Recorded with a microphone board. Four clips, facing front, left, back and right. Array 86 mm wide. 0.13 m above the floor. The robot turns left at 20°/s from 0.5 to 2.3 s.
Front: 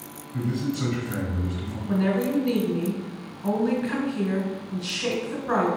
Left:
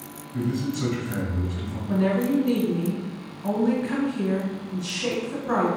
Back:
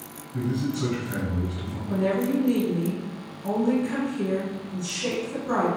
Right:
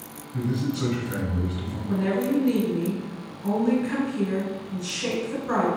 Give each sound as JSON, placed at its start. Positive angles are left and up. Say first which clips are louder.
{"t": 0.3, "sound": "a man speaking", "louder": "even, even", "azimuth_deg": -90, "distance_m": 1.6}
{"t": 1.9, "sound": "a woman speaking", "louder": "left 2 dB, even", "azimuth_deg": 15, "distance_m": 1.1}